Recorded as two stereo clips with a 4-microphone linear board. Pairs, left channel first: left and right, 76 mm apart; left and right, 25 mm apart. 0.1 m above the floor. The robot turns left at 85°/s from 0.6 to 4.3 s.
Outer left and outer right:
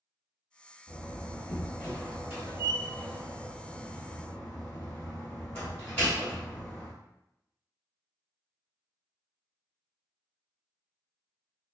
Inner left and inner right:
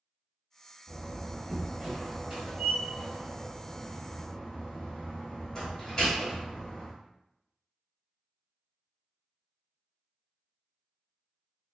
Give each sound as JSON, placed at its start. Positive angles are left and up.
{"t": 0.9, "sound": "a door slam", "azimuth_deg": 80, "distance_m": 1.6}